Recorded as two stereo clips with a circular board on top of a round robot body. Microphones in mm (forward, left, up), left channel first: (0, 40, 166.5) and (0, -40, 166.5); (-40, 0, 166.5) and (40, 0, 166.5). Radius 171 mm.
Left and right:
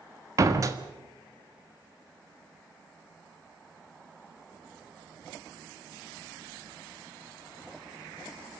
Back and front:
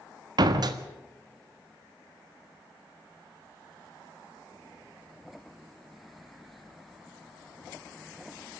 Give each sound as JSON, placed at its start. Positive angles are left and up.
{"t": 0.4, "sound": "a door slam", "azimuth_deg": -40, "distance_m": 1.5}